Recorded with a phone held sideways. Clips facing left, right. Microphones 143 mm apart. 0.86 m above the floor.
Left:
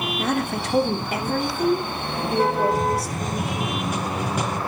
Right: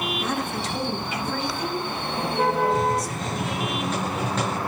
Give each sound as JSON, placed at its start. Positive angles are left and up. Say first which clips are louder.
{"t": 0.2, "sound": "a woman speaking", "louder": "left 3 dB", "side_deg": 60, "distance_m": 2.5}
{"t": 2.7, "sound": "a hiss", "louder": "even", "side_deg": 10, "distance_m": 7.0}